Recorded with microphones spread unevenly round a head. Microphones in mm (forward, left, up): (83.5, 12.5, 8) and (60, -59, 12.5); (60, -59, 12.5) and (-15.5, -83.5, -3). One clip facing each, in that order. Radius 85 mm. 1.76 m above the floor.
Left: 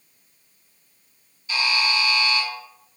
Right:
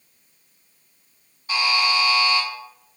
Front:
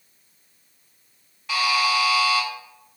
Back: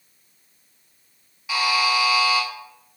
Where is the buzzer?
70° right, 1.5 m.